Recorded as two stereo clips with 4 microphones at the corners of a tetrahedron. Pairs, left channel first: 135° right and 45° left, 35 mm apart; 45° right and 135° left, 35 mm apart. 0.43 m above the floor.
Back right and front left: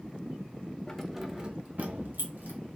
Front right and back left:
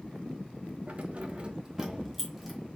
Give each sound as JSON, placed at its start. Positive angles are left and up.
{"t": 0.9, "sound": "keys jangling", "azimuth_deg": 150, "distance_m": 0.7}